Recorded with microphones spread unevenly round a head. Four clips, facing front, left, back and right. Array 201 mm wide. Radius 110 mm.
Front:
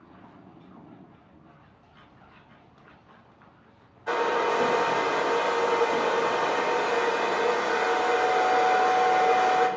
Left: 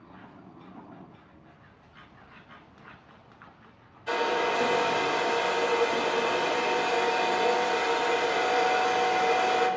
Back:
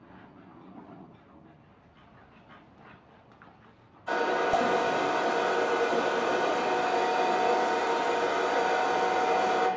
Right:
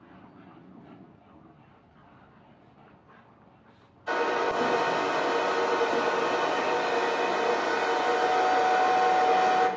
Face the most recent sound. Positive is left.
turn(degrees=5)